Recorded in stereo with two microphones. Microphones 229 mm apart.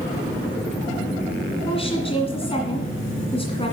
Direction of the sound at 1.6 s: 25° left (ahead or behind).